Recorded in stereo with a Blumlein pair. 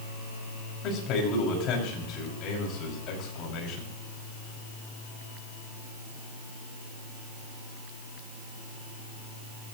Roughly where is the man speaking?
Ahead left.